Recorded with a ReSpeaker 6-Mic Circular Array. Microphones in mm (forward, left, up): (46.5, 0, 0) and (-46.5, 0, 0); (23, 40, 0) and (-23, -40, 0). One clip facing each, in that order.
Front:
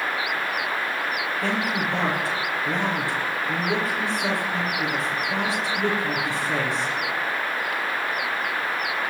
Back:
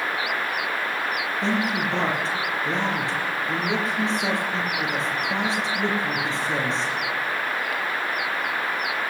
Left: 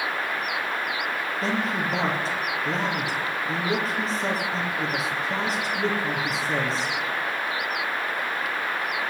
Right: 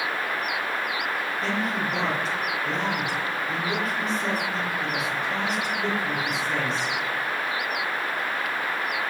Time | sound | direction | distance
1.4 | a man speaking | 115° left | 5 m